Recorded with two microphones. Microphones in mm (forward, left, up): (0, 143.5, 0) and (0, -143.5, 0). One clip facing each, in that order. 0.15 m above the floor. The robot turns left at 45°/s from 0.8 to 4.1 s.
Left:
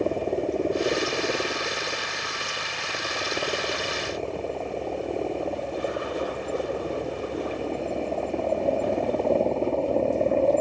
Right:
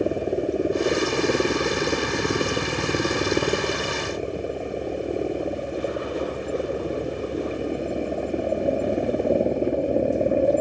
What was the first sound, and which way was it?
A helicopter, 15° right.